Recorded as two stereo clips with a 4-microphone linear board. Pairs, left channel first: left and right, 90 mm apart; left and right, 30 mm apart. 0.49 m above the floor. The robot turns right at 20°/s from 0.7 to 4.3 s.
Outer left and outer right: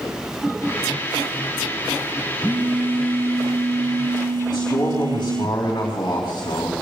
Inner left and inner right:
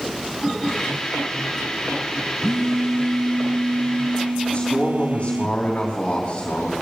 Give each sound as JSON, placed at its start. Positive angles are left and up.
{"t": 2.4, "sound": "a phone buzzing", "azimuth_deg": -165, "distance_m": 0.9}
{"t": 4.5, "sound": "a man speaking", "side_deg": 45, "distance_m": 3.5}